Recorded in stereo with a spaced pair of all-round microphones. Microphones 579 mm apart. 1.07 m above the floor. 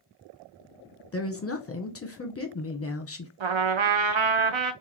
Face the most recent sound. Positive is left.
turn(degrees=-55)  # may be behind; listen again after turning